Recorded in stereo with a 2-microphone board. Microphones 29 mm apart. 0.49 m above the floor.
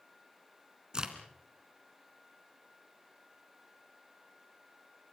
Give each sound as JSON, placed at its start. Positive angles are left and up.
{"t": 0.9, "sound": "a crack", "side_deg": -25, "distance_m": 2.5}